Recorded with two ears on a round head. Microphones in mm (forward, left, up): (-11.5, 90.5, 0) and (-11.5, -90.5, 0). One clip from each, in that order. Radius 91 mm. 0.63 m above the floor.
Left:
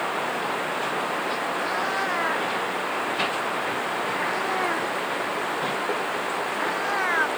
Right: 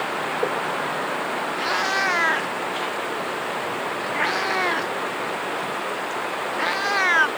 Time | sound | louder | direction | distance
1.6 | a cat meowing | right 7 dB | 55° right (ahead or behind) | ?